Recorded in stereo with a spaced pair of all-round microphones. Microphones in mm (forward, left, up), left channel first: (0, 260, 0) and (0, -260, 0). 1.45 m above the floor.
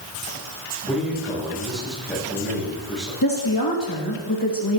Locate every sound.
0.9 s a man speaking: centre (ahead or behind), 8.5 m
3.2 s a woman speaking: 40° left (ahead or behind), 2.5 m